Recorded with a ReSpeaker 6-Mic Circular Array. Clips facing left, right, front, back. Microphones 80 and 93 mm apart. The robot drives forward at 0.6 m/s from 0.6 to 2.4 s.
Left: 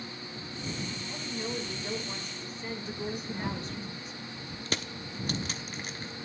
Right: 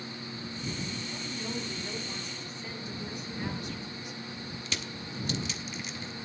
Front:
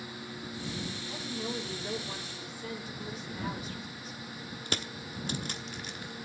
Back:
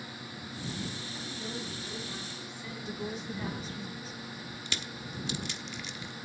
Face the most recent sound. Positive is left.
turn(degrees=45)